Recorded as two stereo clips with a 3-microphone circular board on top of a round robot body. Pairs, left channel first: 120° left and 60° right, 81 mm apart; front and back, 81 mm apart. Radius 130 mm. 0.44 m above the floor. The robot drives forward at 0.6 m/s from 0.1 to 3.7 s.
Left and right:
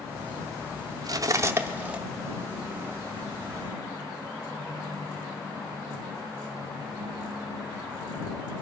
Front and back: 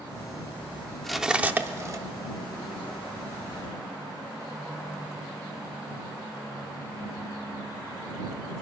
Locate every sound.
1.0 s cutlery clinking: 85° right, 0.7 m; by 2.0 s 135° right, 0.9 m